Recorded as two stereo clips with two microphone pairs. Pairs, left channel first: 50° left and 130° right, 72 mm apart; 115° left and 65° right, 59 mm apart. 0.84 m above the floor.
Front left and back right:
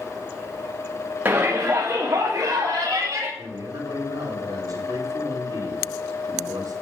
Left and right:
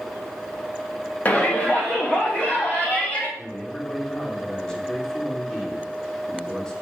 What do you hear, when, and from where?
1.2 s a shout: 170° left, 1.2 m; by 3.3 s straight behind, 3.5 m
3.4 s a man speaking: 165° right, 2.5 m